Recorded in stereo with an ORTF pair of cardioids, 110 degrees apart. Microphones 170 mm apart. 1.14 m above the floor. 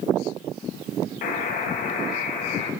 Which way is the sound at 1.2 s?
55° left.